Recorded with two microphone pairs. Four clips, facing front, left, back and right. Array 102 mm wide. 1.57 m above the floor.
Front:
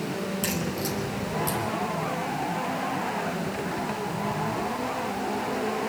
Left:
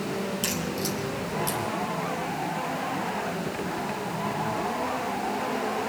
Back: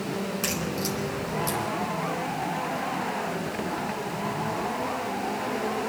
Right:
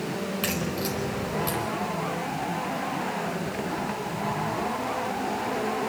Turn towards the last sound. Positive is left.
turn(degrees=-125)